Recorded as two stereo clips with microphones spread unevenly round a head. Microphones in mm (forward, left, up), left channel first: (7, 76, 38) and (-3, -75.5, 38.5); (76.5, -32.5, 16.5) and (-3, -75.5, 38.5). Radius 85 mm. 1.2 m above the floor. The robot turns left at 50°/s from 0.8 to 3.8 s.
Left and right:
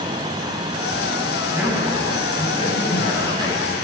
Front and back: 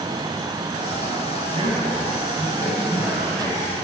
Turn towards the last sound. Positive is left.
turn(degrees=80)